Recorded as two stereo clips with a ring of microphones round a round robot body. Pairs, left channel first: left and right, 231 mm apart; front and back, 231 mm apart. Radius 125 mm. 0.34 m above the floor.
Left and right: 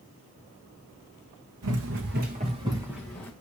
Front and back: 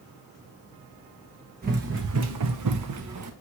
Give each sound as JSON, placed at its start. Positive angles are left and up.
{"t": 1.6, "sound": "running footsteps", "azimuth_deg": -120, "distance_m": 1.2}